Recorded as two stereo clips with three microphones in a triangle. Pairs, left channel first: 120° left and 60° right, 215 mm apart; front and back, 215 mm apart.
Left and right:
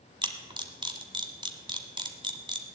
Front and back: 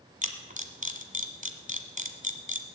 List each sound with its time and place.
0.2 s a camera shutter: 130° right, 1.2 m